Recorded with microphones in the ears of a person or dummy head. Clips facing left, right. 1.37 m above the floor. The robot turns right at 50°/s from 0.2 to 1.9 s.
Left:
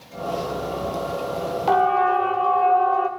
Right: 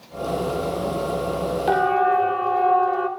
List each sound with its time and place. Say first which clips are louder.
1.7 s a siren: left 1 dB; 15° right (ahead or behind), 2.5 m; by 3.1 s 10° right (ahead or behind), 3.5 m